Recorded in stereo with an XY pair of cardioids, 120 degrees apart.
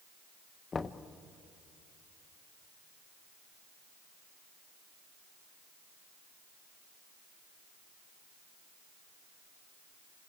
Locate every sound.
0.7 s knocking: 25° left, 0.8 m